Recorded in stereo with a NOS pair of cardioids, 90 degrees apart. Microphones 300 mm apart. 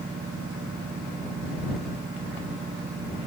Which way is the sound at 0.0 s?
30° right.